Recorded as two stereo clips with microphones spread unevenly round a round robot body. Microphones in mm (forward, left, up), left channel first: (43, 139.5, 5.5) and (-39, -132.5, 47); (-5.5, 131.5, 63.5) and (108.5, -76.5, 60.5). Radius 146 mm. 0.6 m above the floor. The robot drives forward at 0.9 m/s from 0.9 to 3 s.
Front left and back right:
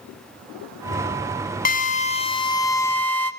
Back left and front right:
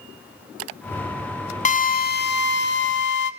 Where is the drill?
80° left, 1.1 m; by 3.3 s 150° left, 1.6 m.